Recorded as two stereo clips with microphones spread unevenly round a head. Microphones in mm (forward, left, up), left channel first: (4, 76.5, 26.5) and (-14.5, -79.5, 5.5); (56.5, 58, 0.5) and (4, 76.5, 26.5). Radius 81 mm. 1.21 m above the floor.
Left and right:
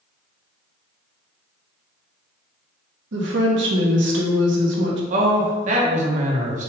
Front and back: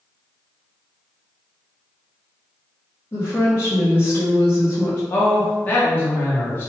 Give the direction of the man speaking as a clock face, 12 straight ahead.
2 o'clock.